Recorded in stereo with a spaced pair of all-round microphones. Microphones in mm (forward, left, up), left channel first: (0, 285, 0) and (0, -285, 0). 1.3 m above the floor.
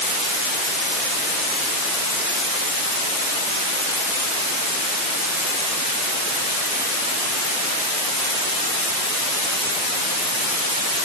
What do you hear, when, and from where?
Only background noise.